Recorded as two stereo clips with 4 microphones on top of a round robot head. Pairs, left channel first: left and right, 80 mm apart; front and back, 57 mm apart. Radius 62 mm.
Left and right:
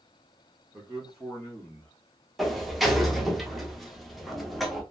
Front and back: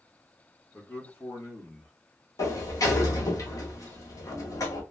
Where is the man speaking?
30° right, 1.3 m; by 1.9 s 20° left, 1.2 m.